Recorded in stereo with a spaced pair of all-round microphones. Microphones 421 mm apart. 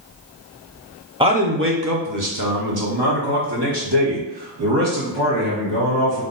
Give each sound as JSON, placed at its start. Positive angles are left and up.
{"t": 1.2, "sound": "a man speaking", "side_deg": -10, "distance_m": 0.7}